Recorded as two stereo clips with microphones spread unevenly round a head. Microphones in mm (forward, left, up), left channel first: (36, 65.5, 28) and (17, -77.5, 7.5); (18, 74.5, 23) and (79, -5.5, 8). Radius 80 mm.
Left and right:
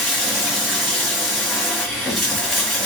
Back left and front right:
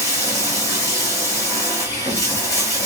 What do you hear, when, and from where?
0.0 s running water: 160° left, 1.1 m